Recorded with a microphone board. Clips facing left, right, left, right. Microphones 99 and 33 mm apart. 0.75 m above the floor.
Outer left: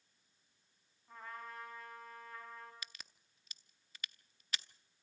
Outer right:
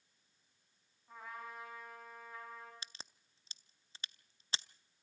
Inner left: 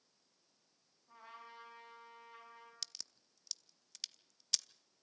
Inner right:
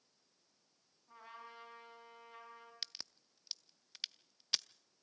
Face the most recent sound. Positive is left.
turn(degrees=-30)  # may be behind; listen again after turning